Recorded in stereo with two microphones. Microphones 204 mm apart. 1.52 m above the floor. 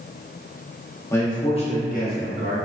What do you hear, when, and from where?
1.1 s a man speaking: 10° left (ahead or behind), 0.9 m; by 2.6 s 60° left (ahead or behind), 1.1 m